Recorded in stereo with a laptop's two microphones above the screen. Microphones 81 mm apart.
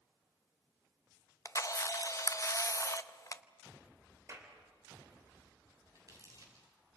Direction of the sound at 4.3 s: 35° right (ahead or behind).